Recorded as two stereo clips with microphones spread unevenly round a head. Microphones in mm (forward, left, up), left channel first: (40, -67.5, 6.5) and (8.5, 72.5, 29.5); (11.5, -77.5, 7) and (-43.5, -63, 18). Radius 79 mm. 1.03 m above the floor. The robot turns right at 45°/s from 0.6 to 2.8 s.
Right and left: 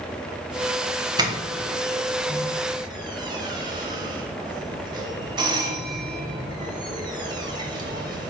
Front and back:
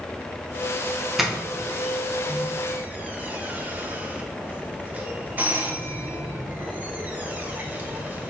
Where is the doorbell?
65° left, 1.0 m; by 8.3 s 135° left, 1.0 m.